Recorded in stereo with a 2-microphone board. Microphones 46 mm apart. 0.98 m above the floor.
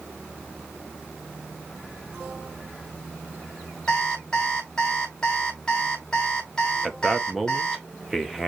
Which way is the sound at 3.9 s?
20° left (ahead or behind).